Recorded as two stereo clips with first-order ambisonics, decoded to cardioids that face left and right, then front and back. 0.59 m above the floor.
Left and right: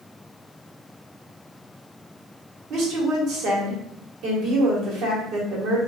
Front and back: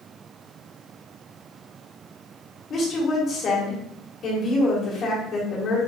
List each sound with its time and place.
2.7 s a woman speaking: 55° right, 1.4 m